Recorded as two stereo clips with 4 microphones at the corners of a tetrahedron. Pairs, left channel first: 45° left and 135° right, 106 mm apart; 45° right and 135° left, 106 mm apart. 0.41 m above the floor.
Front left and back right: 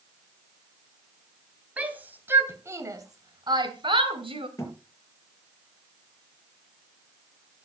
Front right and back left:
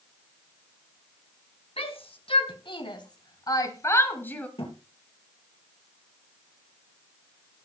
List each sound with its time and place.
1.8 s a shout: 60° right, 2.5 m; by 4.5 s 120° right, 2 m
4.6 s a thud: 15° right, 4.5 m